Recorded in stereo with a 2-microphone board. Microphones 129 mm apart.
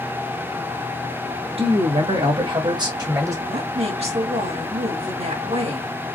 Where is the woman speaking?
55° right (ahead or behind), 2 m.